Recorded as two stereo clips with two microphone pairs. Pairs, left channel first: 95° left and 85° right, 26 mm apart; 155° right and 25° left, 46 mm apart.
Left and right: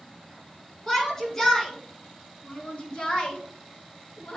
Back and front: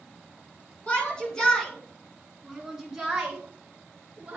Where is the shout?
155° left, 2 m; by 4.4 s 80° left, 2.5 m.